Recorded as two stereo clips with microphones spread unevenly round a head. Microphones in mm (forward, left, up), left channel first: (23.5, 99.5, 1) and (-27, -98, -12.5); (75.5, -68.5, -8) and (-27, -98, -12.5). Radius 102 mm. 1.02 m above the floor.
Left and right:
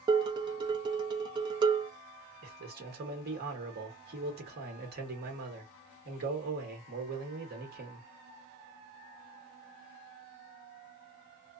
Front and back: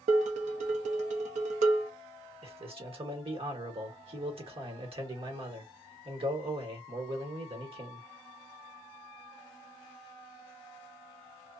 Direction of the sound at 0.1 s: 175° right.